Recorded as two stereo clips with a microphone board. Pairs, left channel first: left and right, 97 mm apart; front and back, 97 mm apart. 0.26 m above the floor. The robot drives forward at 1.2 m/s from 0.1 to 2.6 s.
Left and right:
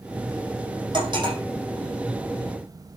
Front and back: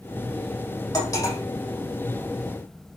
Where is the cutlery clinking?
50° right, 6.5 m; by 1.4 s 55° right, 6.5 m.